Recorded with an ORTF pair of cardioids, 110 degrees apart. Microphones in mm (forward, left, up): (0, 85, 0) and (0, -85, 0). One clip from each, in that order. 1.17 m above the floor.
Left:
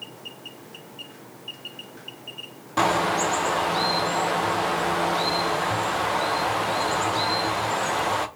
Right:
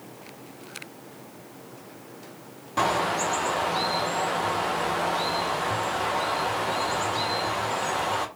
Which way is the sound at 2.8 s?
15° left.